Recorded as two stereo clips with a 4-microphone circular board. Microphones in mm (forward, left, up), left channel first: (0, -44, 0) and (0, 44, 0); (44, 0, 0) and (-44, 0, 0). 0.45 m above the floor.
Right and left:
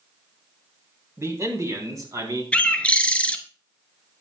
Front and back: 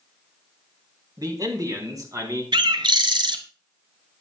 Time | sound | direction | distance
1.2 | a man speaking | 145° left | 3 m
2.5 | a bird | 165° right | 1.0 m